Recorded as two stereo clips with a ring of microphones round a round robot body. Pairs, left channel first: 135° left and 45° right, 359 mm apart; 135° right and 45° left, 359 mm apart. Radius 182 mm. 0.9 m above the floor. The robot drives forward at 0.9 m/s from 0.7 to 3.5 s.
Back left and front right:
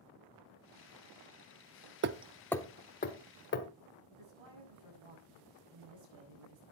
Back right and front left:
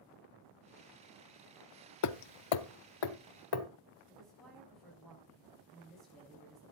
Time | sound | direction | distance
2.0 | hammering | 100° right | 0.5 m
4.1 | a woman speaking | 45° right | 7.5 m